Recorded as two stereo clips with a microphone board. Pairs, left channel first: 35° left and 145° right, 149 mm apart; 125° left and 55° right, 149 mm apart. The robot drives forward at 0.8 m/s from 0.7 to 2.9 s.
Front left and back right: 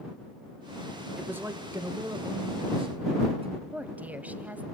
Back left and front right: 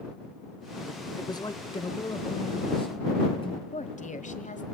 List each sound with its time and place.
1.2 s a man speaking: 145° left, 1.2 m; by 3.6 s 170° left, 2 m
3.7 s a woman speaking: 135° left, 1.5 m